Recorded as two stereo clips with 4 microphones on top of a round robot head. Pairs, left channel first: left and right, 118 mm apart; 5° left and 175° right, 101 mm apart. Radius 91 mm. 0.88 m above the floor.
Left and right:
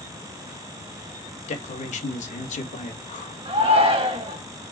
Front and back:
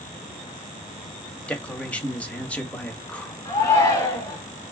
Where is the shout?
50° right, 2 m.